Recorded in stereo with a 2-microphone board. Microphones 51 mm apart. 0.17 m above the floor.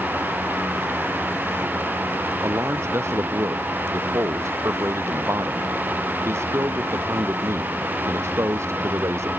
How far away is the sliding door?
No sliding door in this recording.